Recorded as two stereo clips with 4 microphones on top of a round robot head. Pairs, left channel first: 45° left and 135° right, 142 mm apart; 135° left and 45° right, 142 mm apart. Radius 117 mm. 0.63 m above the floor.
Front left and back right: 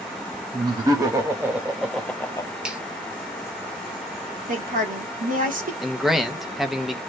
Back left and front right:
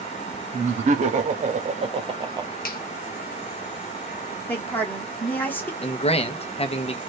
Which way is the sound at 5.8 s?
140° left.